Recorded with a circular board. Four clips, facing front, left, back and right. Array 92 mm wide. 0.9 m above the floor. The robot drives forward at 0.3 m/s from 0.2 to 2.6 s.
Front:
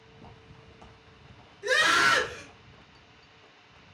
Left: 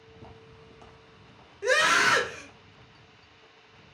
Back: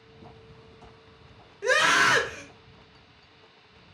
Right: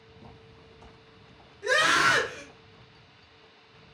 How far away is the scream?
About 1.1 m.